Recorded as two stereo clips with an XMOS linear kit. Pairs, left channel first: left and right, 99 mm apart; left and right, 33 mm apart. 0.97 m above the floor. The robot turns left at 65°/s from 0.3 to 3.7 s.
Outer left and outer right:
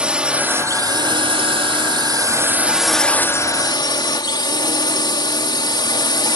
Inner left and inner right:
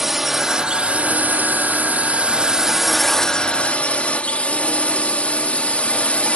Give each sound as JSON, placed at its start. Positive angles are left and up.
{"t": 0.0, "sound": "a drone", "azimuth_deg": -10}